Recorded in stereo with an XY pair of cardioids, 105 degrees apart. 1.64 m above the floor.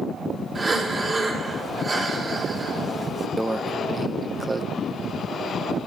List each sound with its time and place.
0.6 s breathing: 35° right, 4.5 m
3.4 s a microwave: 25° right, 0.6 m